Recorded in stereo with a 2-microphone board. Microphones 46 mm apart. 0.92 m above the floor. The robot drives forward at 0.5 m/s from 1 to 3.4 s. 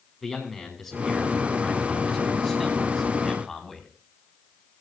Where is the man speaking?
5° left (ahead or behind), 6.5 m.